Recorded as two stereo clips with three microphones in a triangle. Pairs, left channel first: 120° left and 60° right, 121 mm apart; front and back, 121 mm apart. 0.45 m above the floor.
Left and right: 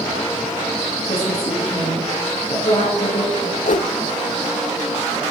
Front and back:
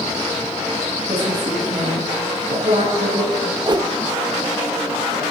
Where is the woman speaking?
155° left, 5.5 m.